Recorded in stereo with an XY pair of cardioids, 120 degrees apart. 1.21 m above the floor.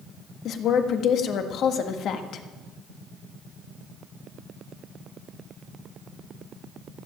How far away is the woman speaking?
About 1.5 m.